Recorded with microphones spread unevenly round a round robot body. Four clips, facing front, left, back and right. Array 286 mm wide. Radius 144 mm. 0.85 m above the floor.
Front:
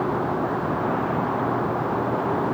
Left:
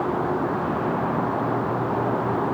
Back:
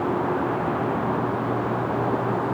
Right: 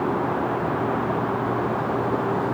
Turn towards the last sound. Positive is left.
No sound to turn to.